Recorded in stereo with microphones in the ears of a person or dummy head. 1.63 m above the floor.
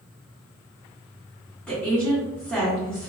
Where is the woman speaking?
5° left (ahead or behind), 1.9 m.